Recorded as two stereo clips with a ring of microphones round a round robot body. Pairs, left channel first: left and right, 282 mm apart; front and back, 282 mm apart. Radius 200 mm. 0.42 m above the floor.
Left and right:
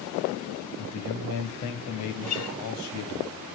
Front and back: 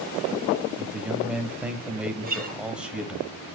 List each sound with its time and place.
0.8 s a man speaking: 95° left, 2.5 m
2.2 s a guitar: 120° left, 3.5 m